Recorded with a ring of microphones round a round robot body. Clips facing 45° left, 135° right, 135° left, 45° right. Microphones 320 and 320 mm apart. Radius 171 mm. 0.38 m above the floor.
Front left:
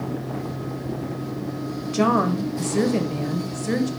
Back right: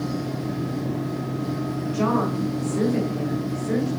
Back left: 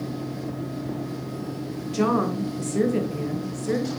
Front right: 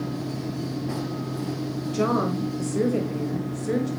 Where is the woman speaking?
55° left, 1.6 m.